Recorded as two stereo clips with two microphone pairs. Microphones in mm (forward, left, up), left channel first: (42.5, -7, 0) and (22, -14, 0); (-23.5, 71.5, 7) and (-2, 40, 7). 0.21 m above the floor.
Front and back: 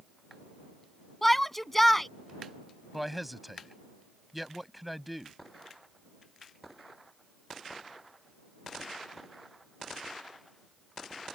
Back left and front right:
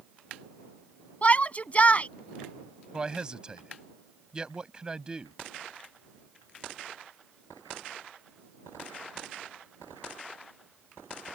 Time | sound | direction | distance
1.2 | a shout | 90° left | ?
2.9 | a man speaking | 80° right | ?